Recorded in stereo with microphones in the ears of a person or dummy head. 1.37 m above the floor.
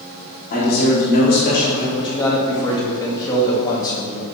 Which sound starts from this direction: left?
A man speaking, at 0.5 s.